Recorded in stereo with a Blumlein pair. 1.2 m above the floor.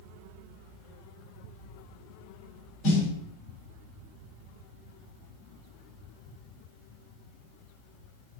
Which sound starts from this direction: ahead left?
A snare drum, at 2.8 s.